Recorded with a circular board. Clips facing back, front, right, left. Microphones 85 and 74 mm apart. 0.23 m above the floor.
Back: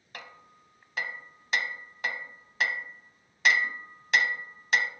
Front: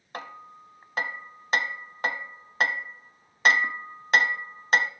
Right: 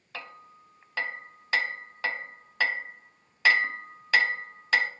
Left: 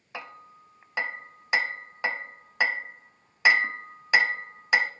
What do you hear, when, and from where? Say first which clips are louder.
0.1 s hammering: front 8 dB, left 2 dB; 25° left, 0.6 m